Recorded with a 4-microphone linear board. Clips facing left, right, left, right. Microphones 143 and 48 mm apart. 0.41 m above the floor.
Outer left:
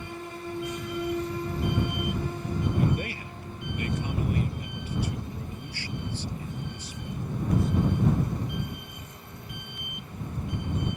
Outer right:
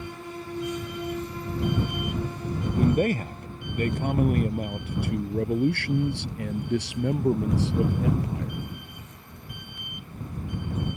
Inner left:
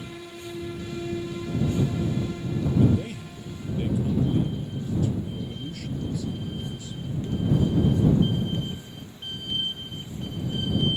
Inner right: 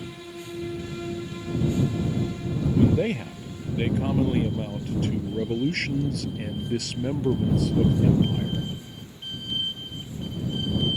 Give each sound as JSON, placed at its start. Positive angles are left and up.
{"t": 2.8, "sound": "a man speaking", "side_deg": -40}